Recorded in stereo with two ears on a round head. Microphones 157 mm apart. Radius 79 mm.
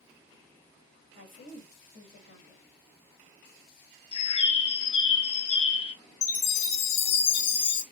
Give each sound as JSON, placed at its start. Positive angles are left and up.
{"t": 1.1, "sound": "a woman speaking", "side_deg": 55, "distance_m": 2.5}
{"t": 4.1, "sound": "a bird", "side_deg": 30, "distance_m": 0.6}
{"t": 6.2, "sound": "a chime", "side_deg": 70, "distance_m": 1.2}